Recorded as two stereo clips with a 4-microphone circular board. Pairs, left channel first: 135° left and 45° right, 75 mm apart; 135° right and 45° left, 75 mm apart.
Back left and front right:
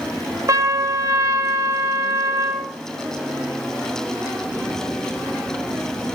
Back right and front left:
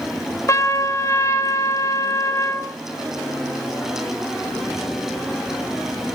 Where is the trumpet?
85° right, 1.3 m.